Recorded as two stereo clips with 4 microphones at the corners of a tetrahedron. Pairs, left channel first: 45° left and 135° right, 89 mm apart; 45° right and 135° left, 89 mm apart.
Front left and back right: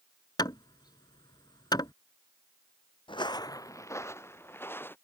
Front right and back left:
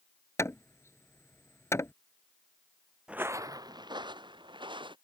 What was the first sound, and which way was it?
Hammering, 10° left.